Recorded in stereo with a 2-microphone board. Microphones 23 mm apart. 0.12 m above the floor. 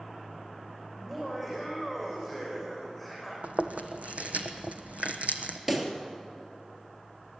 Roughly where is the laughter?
Centre.